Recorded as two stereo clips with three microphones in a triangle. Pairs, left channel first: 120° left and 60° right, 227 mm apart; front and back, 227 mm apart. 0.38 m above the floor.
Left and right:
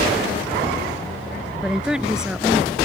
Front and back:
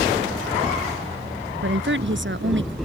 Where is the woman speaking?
145° right.